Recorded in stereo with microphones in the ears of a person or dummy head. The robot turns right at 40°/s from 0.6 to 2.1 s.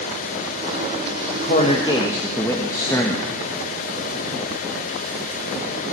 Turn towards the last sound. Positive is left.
turn(degrees=15)  # may be behind; listen again after turning